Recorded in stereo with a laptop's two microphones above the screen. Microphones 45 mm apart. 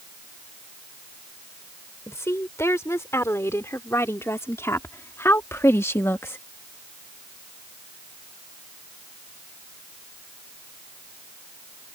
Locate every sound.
2.1 s a woman speaking: 75° left (ahead or behind); by 6.4 s 65° left (ahead or behind)